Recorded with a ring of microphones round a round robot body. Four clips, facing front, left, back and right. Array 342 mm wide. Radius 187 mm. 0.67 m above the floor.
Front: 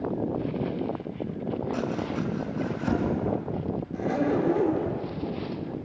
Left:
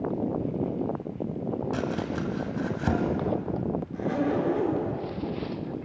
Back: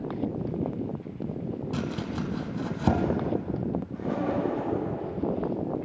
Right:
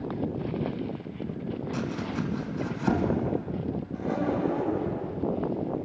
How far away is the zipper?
About 4 m.